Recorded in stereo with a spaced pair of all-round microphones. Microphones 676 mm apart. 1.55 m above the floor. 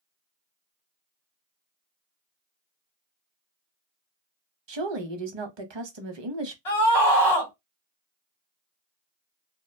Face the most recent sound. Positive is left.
turn(degrees=45)  # may be behind; listen again after turning